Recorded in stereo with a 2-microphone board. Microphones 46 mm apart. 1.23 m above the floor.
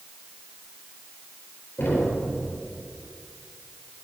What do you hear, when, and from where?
1.8 s knocking: 50° left (ahead or behind), 3.5 m